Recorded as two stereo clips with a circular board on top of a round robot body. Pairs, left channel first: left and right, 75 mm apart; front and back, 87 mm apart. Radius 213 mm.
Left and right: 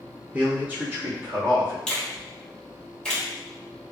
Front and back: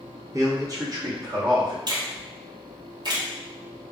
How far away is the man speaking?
About 1.2 m.